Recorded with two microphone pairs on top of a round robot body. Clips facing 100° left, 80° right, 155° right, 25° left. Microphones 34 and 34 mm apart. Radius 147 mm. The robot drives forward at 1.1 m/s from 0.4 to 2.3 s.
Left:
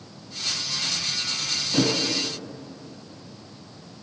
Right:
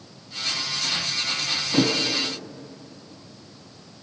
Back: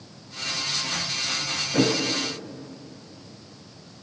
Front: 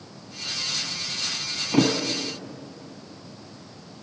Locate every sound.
1.7 s a thud: straight ahead, 3.5 m